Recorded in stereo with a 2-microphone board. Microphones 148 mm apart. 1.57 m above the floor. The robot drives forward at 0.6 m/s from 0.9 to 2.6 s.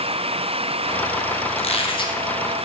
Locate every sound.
1.6 s a squeak: 45° left (ahead or behind), 0.7 m; by 2.2 s 30° left (ahead or behind), 0.9 m